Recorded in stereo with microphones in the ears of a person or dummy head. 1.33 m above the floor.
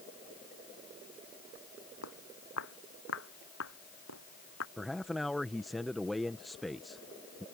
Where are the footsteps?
75° left (ahead or behind); by 4.7 s 70° left (ahead or behind).